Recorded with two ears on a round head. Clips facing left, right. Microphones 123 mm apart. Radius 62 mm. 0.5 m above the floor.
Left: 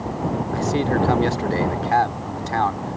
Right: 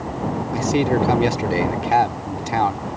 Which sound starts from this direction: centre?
A man speaking, at 0.5 s.